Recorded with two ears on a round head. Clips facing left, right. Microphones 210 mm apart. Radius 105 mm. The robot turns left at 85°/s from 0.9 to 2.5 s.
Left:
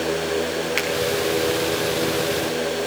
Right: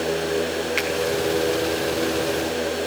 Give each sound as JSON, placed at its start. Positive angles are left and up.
{"t": 0.8, "sound": "a finger snap", "side_deg": 15, "distance_m": 4.5}